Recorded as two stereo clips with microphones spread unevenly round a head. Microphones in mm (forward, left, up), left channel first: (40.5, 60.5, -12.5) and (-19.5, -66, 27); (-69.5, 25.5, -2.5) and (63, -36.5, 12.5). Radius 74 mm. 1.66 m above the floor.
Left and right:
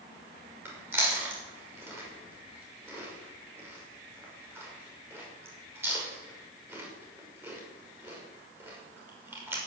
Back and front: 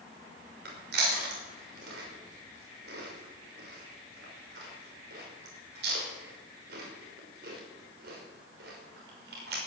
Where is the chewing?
40° right, 5.5 m.